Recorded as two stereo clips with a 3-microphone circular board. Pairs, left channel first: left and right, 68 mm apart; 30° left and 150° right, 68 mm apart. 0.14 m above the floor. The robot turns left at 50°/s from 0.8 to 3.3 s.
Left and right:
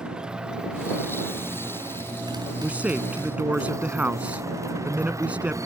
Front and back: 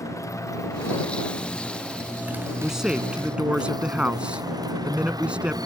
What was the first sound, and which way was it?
A motorcycle, 10° right.